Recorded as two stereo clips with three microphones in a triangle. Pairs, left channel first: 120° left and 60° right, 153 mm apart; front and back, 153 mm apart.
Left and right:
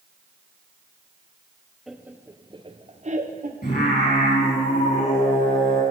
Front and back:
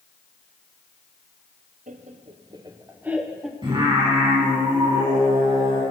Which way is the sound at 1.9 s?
150° right.